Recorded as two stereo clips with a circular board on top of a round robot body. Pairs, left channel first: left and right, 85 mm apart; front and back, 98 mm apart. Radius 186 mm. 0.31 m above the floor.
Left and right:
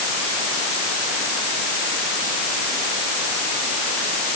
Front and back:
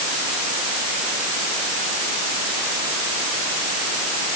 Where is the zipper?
I don't hear a zipper.